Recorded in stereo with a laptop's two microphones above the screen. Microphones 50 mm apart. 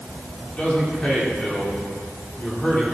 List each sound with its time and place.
0.5 s a man speaking: 25° left (ahead or behind), 3 m